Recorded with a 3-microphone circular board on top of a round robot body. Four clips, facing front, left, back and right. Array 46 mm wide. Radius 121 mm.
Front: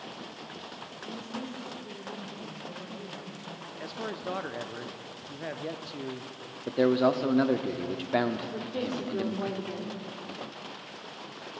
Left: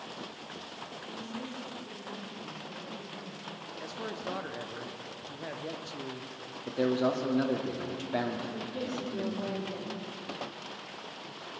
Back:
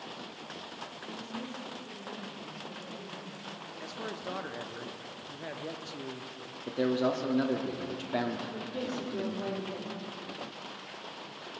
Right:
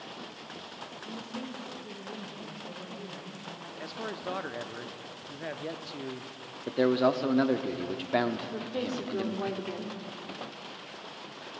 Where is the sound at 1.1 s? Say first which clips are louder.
Right 1 dB, front 4 dB; 55° right, 2.5 m.